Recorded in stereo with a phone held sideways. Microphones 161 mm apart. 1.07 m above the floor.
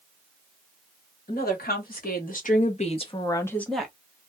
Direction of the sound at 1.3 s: 70° left (ahead or behind).